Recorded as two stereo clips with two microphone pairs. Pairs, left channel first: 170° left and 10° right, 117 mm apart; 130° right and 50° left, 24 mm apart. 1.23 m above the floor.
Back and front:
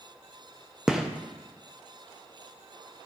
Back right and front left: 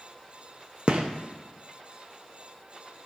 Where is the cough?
No cough in this recording.